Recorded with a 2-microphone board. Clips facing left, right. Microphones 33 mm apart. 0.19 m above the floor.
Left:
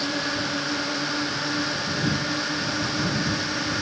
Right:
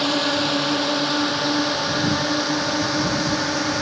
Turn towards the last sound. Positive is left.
turn(degrees=-70)  # may be behind; listen again after turning